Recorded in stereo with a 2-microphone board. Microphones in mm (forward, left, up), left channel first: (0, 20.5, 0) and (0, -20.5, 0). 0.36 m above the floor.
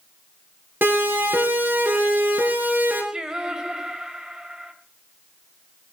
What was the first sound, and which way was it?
A siren, 60° right (ahead or behind).